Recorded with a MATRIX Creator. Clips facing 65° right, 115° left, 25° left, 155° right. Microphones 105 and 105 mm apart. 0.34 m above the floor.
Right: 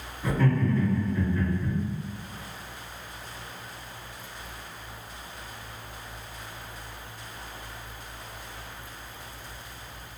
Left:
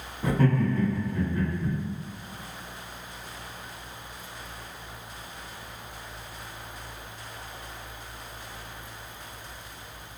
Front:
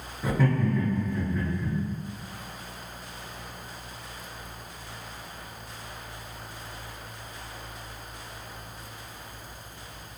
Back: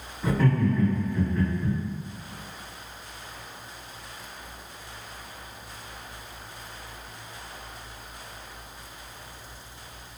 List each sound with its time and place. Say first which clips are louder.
0.2 s laughter: left 1 dB, back 2 dB; 95° left, 1.1 m